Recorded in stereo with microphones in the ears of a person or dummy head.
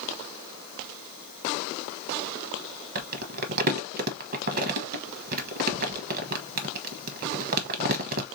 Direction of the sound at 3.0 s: 45° right (ahead or behind).